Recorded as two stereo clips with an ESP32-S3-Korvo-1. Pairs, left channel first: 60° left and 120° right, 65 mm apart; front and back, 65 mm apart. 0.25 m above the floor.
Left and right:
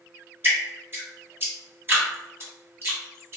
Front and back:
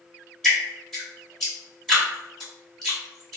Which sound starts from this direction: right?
Dripping, at 0.4 s.